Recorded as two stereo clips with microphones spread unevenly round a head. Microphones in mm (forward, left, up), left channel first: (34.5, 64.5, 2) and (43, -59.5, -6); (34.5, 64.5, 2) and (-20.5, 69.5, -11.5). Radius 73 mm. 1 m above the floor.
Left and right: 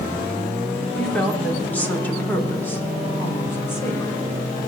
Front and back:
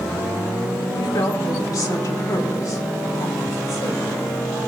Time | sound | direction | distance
0.9 | a woman speaking | 10° left | 3 m